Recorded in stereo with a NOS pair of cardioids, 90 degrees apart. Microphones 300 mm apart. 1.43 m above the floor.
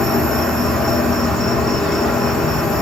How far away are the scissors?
No scissors in this recording.